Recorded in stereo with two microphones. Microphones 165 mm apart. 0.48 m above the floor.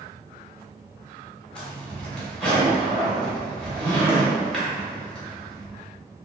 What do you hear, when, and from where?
1.6 s a zipper: 5° left (ahead or behind), 0.9 m